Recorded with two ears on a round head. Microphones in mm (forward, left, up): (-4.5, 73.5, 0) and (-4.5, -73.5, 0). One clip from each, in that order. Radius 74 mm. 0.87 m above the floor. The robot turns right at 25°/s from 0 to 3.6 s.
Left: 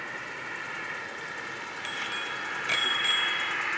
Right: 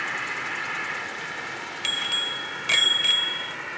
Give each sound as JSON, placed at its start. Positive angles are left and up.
{"t": 0.0, "sound": "an insect", "azimuth_deg": -45}
{"t": 1.8, "sound": "a bicycle bell", "azimuth_deg": -45}